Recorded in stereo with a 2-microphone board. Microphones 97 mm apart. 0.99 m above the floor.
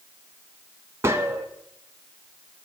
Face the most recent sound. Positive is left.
turn(degrees=-25)  # may be behind; listen again after turning